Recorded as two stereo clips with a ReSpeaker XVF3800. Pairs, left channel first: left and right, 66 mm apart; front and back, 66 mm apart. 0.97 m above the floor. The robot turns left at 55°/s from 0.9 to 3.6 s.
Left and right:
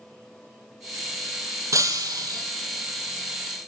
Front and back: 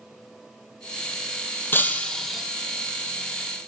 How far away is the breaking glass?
About 2.5 m.